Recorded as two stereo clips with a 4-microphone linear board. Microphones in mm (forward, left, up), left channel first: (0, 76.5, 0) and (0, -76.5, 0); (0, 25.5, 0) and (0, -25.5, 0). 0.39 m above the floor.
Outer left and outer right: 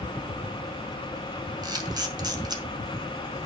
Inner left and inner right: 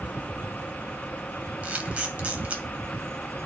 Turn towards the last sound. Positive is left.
turn(degrees=-25)  # may be behind; listen again after turning